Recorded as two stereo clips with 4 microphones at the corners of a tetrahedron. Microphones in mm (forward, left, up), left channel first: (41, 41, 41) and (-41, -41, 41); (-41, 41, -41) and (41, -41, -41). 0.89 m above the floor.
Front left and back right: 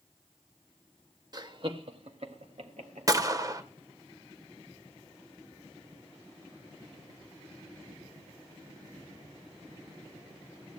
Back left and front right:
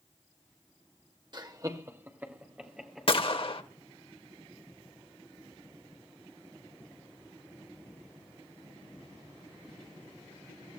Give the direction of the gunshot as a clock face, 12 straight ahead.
6 o'clock.